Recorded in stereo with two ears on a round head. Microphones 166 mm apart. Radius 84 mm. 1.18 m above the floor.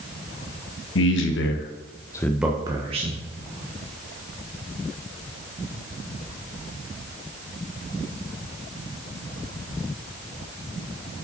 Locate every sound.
0.9 s a man speaking: 75° left (ahead or behind), 1.4 m; by 3.2 s 40° right (ahead or behind), 1.3 m